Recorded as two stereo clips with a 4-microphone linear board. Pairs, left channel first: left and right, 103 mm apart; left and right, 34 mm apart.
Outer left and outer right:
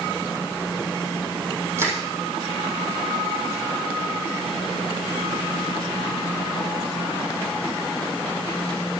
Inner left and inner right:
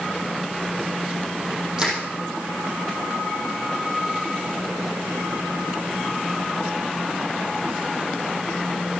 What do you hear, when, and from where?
1.8 s crushing: 25° right (ahead or behind), 4.5 m